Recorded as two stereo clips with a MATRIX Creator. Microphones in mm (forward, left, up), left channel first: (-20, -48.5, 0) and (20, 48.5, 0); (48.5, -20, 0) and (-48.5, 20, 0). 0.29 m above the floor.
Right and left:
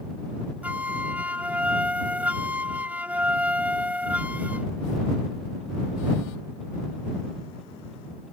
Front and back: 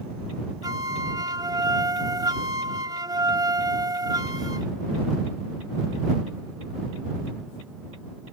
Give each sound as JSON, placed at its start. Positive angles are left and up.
{"t": 0.6, "sound": "a flute", "azimuth_deg": 135}